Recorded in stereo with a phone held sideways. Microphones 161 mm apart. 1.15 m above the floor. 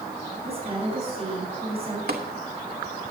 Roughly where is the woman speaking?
Right.